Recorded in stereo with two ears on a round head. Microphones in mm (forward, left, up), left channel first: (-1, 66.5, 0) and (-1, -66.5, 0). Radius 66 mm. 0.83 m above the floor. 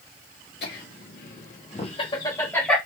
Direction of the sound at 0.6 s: 75° left (ahead or behind).